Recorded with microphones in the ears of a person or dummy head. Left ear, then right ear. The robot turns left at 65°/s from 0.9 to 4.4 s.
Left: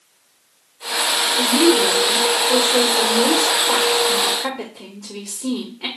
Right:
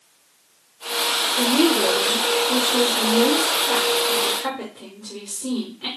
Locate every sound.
1.4 s a woman speaking: 130° right, 1.1 m; by 5.9 s 30° left, 1.1 m